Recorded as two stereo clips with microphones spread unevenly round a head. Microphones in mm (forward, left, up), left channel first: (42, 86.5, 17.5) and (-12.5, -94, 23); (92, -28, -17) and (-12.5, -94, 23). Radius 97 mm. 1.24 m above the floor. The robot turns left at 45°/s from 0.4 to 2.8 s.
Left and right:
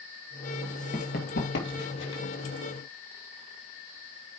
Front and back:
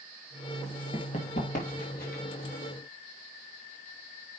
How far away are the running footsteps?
About 1.4 m.